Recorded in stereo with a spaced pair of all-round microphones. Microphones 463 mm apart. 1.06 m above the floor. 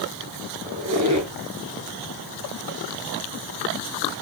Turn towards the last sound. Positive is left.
turn(degrees=-40)  # may be behind; listen again after turning